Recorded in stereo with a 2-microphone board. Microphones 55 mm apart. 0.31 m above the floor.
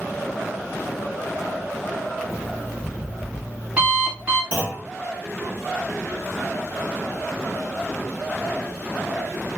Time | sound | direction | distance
2.3 | an alarm clock | 25° right (ahead or behind) | 1.3 m
4.5 | a clunk | 35° right (ahead or behind) | 1.0 m